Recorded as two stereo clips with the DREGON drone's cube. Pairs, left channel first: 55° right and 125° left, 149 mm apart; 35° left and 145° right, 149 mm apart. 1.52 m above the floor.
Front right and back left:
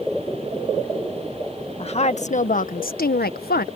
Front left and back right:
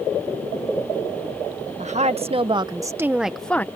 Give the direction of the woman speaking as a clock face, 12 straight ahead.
4 o'clock.